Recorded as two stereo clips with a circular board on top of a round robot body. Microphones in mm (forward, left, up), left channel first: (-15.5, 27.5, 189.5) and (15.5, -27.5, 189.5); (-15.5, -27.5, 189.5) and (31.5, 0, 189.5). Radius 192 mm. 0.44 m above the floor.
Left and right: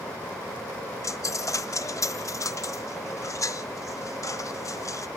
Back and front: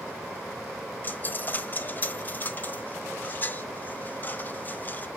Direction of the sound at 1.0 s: 150° left.